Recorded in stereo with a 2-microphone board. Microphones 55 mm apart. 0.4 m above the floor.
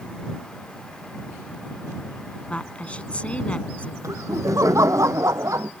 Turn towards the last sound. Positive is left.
turn(degrees=-75)  # may be behind; listen again after turning